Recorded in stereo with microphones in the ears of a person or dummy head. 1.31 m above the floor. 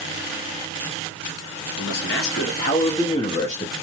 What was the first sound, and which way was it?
A man speaking, 65° left (ahead or behind).